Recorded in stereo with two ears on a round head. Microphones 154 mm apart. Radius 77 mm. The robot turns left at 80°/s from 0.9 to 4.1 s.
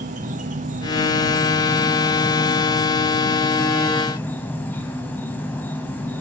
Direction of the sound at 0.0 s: 90° right.